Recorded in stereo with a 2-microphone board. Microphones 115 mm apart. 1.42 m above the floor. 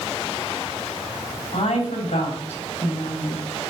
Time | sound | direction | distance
1.5 | a woman speaking | 65° left (ahead or behind) | 4 m